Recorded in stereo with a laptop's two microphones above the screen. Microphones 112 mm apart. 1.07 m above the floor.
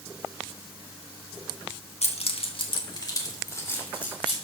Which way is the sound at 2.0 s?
75° left (ahead or behind).